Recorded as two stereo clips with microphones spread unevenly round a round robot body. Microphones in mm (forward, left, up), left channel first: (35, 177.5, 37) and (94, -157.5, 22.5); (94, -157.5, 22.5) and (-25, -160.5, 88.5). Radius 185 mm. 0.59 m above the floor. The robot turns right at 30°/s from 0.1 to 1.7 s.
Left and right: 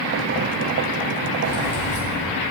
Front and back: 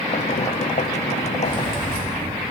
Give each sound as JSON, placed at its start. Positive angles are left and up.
{"t": 1.4, "sound": "keys jangling", "azimuth_deg": -70, "distance_m": 3.5}